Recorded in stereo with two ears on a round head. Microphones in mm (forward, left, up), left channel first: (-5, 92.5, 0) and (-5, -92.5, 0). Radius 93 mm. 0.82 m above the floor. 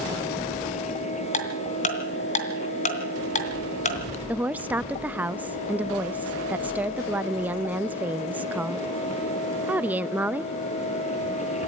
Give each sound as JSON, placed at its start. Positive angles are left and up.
{"t": 1.3, "sound": "ticking", "side_deg": 35, "distance_m": 2.5}
{"t": 4.3, "sound": "a woman speaking", "side_deg": -10, "distance_m": 0.6}